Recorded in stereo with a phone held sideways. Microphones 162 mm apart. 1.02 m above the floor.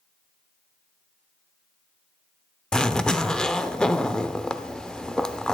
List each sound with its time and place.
2.7 s a zipper: 5° left (ahead or behind), 0.6 m